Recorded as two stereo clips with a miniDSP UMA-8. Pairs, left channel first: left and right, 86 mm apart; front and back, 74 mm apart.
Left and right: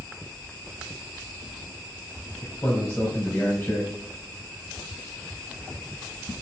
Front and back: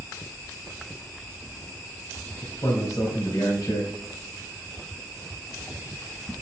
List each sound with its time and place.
2.4 s a man speaking: 30° left, 3.5 m